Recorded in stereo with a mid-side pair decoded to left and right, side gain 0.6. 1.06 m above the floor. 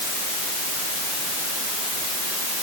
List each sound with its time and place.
Only background noise.